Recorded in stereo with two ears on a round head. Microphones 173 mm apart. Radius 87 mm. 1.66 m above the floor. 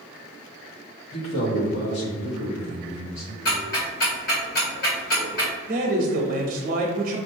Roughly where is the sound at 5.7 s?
Right.